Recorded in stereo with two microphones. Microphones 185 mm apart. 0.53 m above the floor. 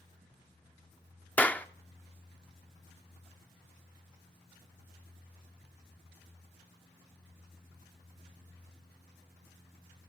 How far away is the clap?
About 0.5 m.